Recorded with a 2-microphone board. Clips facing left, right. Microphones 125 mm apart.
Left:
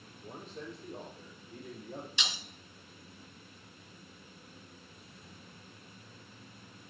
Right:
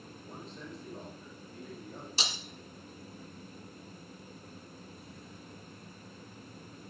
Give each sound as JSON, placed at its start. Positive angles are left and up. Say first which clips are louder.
{"t": 0.2, "sound": "a man speaking", "louder": "left 3 dB", "side_deg": 65, "distance_m": 6.0}
{"t": 2.2, "sound": "breaking glass", "louder": "right 2 dB", "side_deg": -40, "distance_m": 1.1}